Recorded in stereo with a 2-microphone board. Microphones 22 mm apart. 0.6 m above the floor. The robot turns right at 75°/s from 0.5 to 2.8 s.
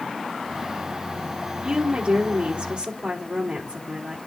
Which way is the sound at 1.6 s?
150° right.